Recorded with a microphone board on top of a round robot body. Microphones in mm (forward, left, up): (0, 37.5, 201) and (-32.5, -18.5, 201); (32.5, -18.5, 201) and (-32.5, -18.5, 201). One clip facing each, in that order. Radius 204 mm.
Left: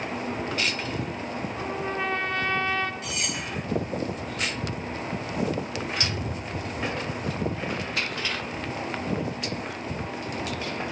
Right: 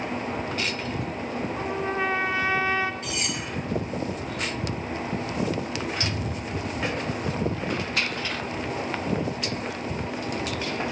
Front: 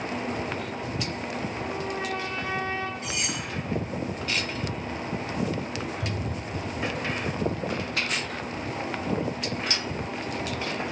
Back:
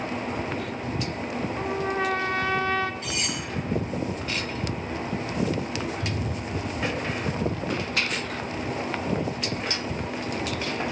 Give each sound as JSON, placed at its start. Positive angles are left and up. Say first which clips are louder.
{"t": 1.6, "sound": "a trumpet", "louder": "right 2 dB, back 4 dB", "azimuth_deg": 160, "distance_m": 0.7}
{"t": 3.0, "sound": "cutlery clinking", "louder": "right 1 dB, back 1 dB", "azimuth_deg": 65, "distance_m": 2.0}
{"t": 6.0, "sound": "a cupboard door", "louder": "right 1 dB, back 2 dB", "azimuth_deg": -40, "distance_m": 1.5}